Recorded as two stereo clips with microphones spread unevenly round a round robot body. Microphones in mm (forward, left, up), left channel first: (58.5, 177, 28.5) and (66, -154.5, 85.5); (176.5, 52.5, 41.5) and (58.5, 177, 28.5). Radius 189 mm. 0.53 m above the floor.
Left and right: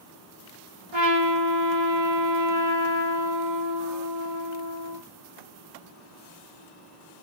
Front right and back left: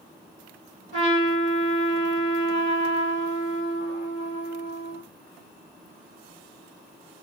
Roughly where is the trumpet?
Right.